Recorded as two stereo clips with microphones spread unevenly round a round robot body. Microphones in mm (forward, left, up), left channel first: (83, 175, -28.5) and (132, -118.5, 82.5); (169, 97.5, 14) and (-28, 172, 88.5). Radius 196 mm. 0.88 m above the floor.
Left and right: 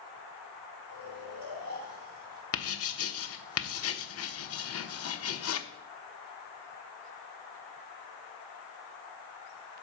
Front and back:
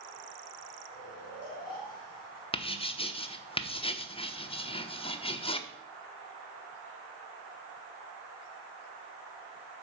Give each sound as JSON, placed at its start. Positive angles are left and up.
{"t": 0.9, "sound": "snoring", "azimuth_deg": -85, "distance_m": 4.5}
{"t": 2.5, "sound": "writing", "azimuth_deg": 50, "distance_m": 1.1}